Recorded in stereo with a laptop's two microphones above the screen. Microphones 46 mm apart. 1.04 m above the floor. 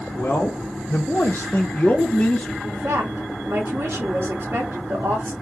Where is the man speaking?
45° left (ahead or behind), 0.7 m; by 2.5 s 20° left (ahead or behind), 0.8 m.